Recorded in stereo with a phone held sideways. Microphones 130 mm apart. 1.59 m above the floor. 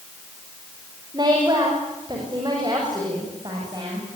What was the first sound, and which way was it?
A woman speaking, 35° right (ahead or behind).